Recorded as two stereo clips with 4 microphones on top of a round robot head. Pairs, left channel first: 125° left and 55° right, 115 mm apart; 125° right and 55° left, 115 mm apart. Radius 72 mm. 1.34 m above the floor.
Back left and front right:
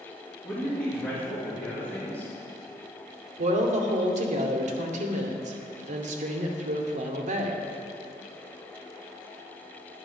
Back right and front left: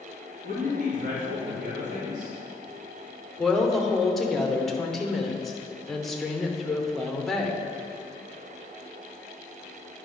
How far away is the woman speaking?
About 1.0 m.